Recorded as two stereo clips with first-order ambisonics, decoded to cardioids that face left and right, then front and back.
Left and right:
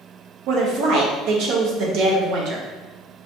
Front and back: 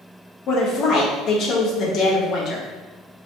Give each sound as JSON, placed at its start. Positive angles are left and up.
{"t": 0.5, "sound": "a woman speaking", "azimuth_deg": -55, "distance_m": 0.8}